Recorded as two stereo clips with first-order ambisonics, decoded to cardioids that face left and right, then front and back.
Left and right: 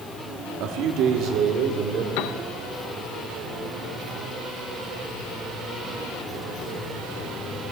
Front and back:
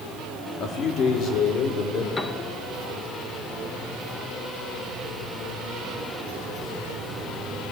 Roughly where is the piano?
Left.